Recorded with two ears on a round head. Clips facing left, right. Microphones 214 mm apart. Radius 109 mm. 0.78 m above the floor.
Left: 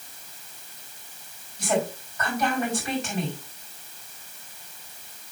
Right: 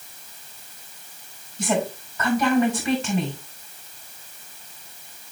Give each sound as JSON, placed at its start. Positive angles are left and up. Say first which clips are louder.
{"t": 1.6, "sound": "a woman speaking", "louder": "right 2 dB", "side_deg": -70, "distance_m": 5.0}